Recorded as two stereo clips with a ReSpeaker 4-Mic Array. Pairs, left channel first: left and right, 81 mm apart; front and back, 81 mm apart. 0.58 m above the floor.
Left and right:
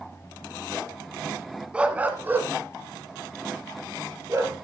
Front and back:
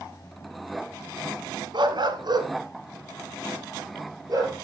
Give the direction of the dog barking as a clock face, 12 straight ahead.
6 o'clock.